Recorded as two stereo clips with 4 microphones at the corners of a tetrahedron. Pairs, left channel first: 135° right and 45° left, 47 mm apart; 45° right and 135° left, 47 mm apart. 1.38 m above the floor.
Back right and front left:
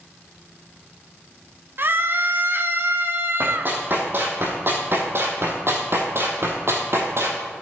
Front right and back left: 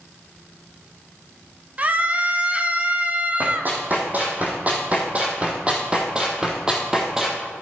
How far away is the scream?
About 0.8 m.